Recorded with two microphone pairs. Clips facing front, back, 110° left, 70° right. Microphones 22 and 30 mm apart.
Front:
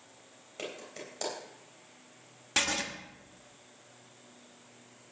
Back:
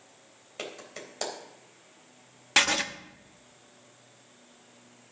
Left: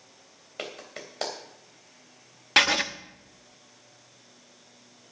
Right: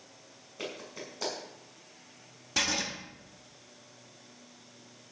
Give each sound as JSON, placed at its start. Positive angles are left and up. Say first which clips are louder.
{"t": 0.6, "sound": "a clap", "louder": "back 1 dB, left 2 dB", "azimuth_deg": 120, "distance_m": 3.5}
{"t": 2.6, "sound": "writing", "louder": "back 6 dB, left 9 dB", "azimuth_deg": 130, "distance_m": 0.8}